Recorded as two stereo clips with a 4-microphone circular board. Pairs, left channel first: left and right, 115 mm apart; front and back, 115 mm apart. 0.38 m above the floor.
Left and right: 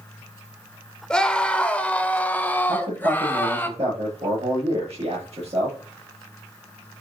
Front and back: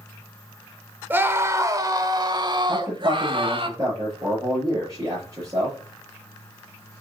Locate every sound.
1.1 s a scream: 160° left, 1.2 m
2.7 s a man speaking: 120° right, 7.5 m